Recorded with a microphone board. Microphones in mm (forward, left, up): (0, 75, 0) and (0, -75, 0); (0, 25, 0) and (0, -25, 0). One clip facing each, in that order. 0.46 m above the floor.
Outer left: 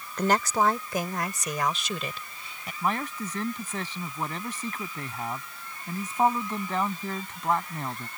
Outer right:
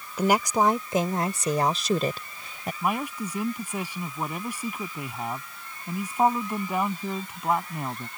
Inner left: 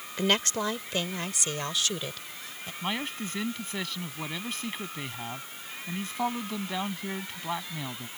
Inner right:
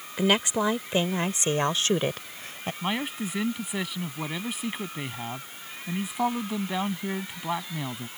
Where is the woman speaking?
10° right (ahead or behind); by 2.7 s 50° right (ahead or behind).